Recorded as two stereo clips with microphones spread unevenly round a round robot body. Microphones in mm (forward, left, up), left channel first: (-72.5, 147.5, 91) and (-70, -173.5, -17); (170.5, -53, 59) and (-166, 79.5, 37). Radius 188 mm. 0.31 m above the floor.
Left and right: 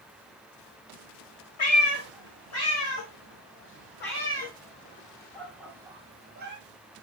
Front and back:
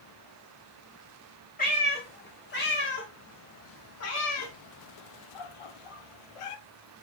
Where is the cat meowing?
45° left, 2.5 m; by 6.6 s 25° right, 1.0 m.